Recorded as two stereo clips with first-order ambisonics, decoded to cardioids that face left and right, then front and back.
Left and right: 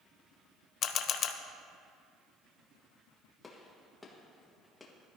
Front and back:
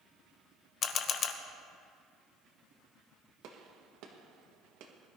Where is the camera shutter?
50° left, 0.8 m.